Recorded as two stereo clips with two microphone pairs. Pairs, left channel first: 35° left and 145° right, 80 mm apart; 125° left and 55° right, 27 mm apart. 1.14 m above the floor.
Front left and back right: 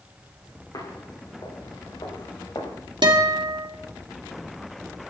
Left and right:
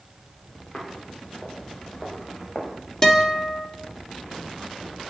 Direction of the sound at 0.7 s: 70° left.